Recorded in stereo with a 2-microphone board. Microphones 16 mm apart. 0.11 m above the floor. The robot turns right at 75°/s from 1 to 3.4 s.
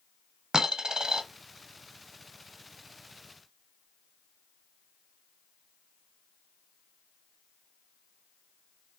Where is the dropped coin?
50° right (ahead or behind), 0.8 m; by 1.2 s 65° right (ahead or behind), 0.8 m.